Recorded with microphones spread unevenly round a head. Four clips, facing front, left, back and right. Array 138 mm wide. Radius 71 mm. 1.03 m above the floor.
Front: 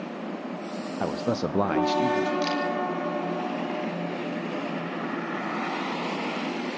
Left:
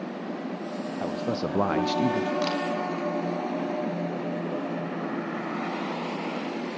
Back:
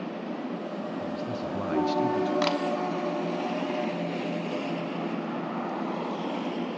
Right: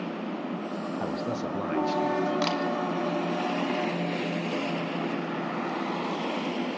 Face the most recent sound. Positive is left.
turn(degrees=-165)